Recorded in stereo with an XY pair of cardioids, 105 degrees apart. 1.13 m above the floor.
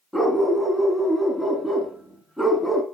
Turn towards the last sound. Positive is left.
turn(degrees=0)